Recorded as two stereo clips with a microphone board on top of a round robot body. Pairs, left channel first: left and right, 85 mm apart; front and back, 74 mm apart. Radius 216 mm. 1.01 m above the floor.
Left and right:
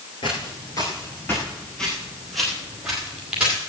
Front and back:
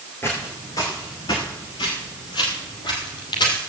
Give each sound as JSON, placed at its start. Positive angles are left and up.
{"t": 0.2, "sound": "footsteps", "azimuth_deg": 65, "distance_m": 1.2}